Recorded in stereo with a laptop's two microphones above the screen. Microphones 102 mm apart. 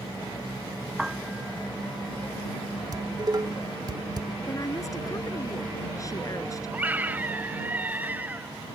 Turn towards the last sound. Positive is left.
turn(degrees=-15)  # may be behind; listen again after turning